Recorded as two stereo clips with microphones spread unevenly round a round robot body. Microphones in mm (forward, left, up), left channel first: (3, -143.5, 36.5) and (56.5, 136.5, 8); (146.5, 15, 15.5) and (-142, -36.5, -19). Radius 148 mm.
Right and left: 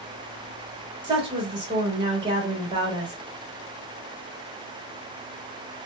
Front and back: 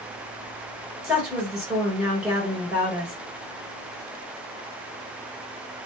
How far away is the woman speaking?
About 1.3 m.